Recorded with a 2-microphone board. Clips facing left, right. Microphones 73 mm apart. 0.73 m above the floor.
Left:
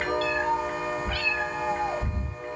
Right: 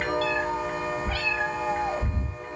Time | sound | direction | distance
0.2 | a cat meowing | 30° right (ahead or behind) | 5.5 m